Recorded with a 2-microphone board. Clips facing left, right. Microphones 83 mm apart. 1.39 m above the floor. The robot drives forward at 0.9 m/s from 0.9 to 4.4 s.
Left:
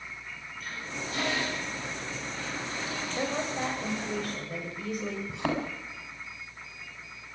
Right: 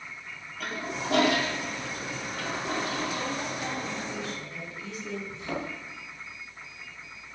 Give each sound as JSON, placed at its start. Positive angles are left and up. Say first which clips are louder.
{"t": 0.6, "sound": "a toilet flushing", "louder": "right 6 dB", "side_deg": -85, "distance_m": 4.0}
{"t": 3.2, "sound": "a woman speaking", "louder": "left 2 dB", "side_deg": 45, "distance_m": 9.0}
{"t": 5.3, "sound": "a thud", "louder": "left 7 dB", "side_deg": 80, "distance_m": 5.5}